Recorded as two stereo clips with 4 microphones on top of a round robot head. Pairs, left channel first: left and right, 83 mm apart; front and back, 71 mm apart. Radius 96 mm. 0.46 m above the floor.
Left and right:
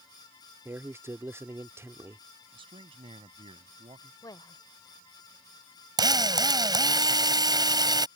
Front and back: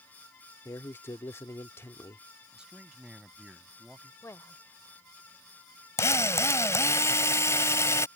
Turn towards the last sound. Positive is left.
turn(degrees=-55)